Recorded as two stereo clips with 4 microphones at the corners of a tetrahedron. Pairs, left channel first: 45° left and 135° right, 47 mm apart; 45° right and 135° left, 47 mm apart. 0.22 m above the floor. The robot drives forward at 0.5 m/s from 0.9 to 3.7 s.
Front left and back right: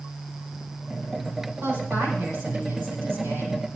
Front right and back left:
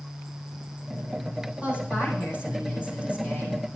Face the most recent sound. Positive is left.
turn(degrees=-160)